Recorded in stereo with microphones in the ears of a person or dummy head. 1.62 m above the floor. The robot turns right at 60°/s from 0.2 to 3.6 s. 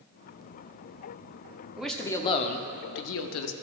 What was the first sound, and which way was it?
A man speaking, 5° right.